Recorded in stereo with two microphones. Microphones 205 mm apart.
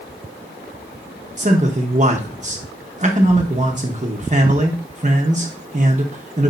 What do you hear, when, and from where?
1.4 s a man speaking: 35° right (ahead or behind), 1.1 m